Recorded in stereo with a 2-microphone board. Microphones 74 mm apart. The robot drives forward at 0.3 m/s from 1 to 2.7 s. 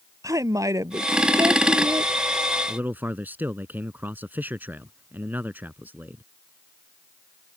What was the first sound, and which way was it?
A woman speaking, 50° right (ahead or behind).